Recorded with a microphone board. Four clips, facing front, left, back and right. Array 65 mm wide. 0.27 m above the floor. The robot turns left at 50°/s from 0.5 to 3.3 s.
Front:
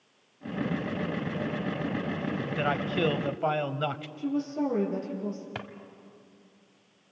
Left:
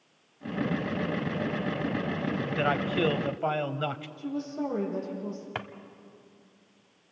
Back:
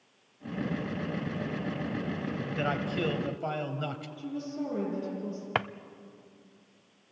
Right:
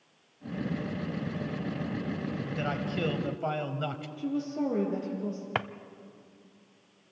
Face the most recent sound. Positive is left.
turn(degrees=-155)